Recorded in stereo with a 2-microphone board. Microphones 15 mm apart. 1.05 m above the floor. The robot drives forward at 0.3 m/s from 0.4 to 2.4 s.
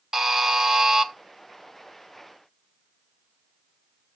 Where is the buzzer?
40° right (ahead or behind), 0.9 m; by 1.1 s 45° right (ahead or behind), 0.7 m.